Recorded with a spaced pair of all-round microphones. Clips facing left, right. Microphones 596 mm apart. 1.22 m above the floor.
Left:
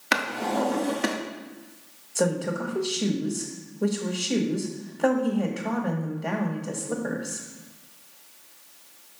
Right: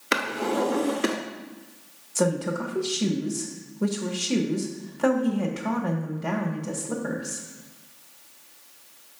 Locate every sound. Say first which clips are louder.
0.1 s a drawer: right 2 dB; 20° left (ahead or behind), 0.7 m
2.1 s a woman speaking: right 1 dB; 30° right (ahead or behind), 1.1 m